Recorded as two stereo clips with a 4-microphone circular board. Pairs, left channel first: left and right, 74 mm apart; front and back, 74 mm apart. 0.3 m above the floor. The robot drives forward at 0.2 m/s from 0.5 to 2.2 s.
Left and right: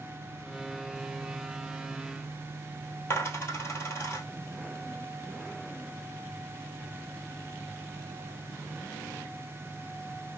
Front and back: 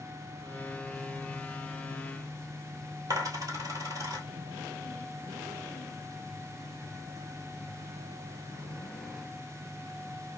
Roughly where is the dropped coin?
Behind left.